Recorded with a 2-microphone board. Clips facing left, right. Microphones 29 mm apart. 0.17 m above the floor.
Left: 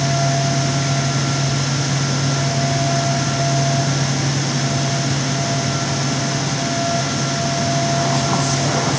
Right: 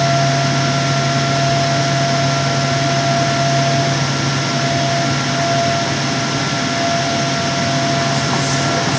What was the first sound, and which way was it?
Only background noise.